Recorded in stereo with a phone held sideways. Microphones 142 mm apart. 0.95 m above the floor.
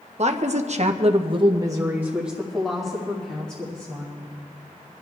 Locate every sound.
0.2 s a woman speaking: 50° right (ahead or behind), 1.0 m; by 4.3 s 10° left (ahead or behind), 2.5 m